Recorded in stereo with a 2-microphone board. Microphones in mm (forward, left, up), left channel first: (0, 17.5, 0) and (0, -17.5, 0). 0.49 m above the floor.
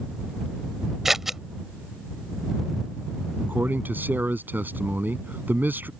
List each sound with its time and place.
1.1 s scissors: 10° right (ahead or behind)
3.4 s a man speaking: 75° right (ahead or behind)